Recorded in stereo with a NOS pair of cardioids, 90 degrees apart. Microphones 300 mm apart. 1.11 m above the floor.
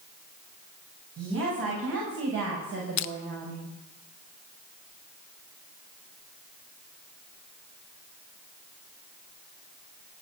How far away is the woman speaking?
About 6.5 m.